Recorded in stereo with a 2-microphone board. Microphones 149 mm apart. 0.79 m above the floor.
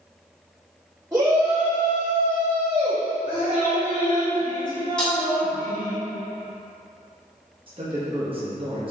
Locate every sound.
1.1 s a shout: 15° right (ahead or behind), 1.4 m; by 4.3 s 70° right (ahead or behind), 1.5 m
3.3 s dripping: 60° left (ahead or behind), 1.3 m
5.0 s breaking glass: 5° left (ahead or behind), 1.3 m
7.7 s a man speaking: 35° right (ahead or behind), 0.8 m